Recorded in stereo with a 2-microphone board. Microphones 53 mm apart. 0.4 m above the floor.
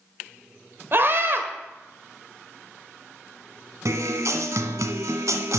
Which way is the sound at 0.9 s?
45° right (ahead or behind).